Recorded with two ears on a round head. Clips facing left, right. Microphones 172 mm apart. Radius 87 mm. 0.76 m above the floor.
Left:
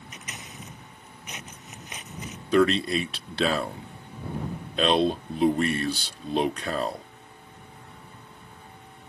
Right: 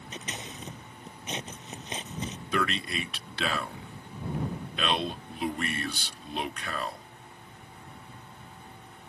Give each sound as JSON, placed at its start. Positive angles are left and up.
{"t": 0.1, "sound": "scissors", "side_deg": -25}
{"t": 2.5, "sound": "a man speaking", "side_deg": 30}